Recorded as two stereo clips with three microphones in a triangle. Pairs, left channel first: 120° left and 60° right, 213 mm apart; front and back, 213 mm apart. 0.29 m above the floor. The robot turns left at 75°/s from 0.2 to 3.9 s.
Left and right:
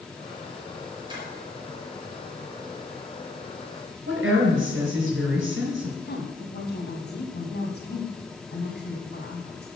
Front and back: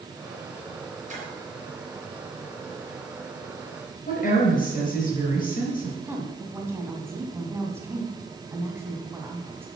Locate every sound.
1.1 s a splash: 125° right, 4 m; by 1.3 s 140° right, 4 m
4.1 s a woman speaking: 45° right, 4 m
6.0 s a woman speaking: 105° left, 2 m